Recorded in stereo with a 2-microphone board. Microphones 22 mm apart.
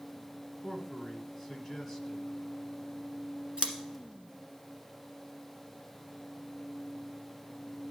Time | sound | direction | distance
0.6 | a man speaking | 5° right (ahead or behind) | 1.4 m
3.6 | scissors | 50° right (ahead or behind) | 1.4 m